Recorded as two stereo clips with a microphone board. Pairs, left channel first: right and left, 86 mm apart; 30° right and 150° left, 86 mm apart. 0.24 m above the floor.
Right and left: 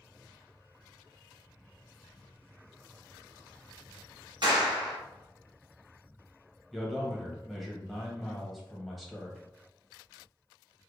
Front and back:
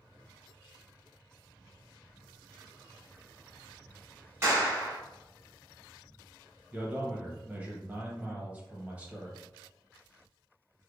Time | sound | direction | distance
4.4 | a clap | 95° left | 1.8 m
6.7 | a man speaking | straight behind | 0.9 m